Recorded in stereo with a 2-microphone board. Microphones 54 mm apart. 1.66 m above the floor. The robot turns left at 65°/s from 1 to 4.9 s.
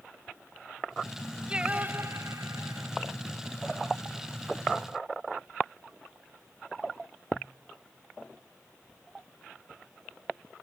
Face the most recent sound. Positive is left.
turn(degrees=125)